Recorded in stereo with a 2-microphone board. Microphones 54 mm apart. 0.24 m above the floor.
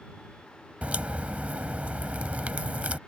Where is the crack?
25° right (ahead or behind).